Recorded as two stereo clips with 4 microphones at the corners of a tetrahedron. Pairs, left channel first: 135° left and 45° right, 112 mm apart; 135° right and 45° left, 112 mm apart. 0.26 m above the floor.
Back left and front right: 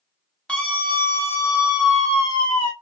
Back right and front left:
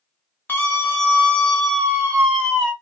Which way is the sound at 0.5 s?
165° right.